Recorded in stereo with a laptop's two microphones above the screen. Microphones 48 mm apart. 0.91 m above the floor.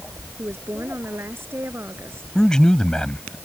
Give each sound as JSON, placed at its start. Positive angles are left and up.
{"t": 0.4, "sound": "a woman speaking", "side_deg": -55}
{"t": 2.4, "sound": "a man speaking", "side_deg": 15}